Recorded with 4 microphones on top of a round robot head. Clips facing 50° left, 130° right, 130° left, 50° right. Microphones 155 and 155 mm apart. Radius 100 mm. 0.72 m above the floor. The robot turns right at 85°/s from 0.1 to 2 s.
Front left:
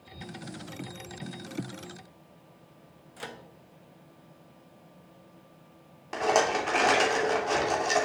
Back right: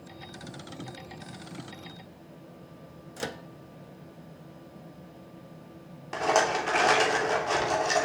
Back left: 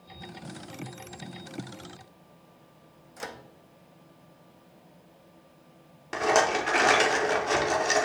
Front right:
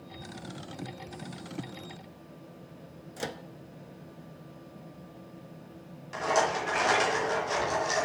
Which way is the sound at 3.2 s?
100° right.